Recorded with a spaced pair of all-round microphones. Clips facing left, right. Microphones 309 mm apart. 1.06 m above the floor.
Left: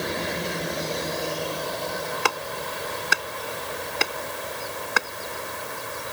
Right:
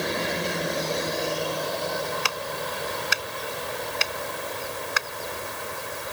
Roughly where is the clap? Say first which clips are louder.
Left 2 dB; left.